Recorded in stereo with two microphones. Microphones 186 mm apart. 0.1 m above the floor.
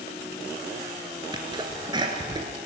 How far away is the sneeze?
About 1.7 m.